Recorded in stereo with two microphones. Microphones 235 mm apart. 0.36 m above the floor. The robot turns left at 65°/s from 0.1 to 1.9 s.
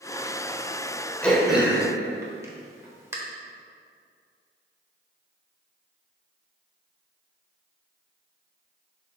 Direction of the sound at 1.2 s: 5° left (ahead or behind).